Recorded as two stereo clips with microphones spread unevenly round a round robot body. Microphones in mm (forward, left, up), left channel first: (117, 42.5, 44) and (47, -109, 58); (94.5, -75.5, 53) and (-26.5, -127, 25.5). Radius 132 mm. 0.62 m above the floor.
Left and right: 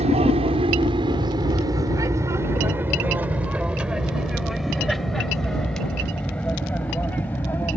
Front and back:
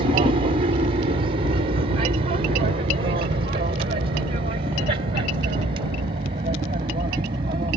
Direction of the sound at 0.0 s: 170° right.